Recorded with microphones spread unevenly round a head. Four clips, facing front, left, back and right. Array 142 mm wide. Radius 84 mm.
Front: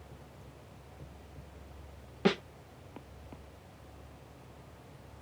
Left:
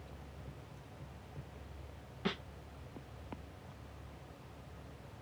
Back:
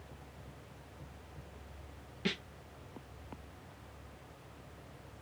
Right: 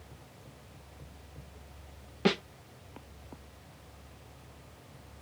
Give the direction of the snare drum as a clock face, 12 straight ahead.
2 o'clock.